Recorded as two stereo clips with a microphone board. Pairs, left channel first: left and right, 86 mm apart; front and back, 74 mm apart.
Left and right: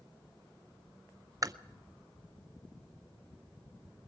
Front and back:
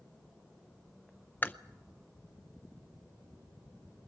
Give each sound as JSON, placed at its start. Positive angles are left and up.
{"t": 1.4, "sound": "chewing", "azimuth_deg": -55, "distance_m": 0.6}